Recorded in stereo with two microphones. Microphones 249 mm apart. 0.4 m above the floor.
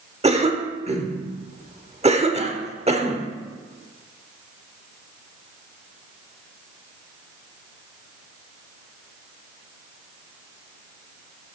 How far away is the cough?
About 1.0 m.